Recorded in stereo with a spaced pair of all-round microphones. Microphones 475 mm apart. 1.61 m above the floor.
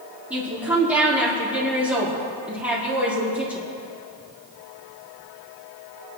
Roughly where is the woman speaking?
Centre.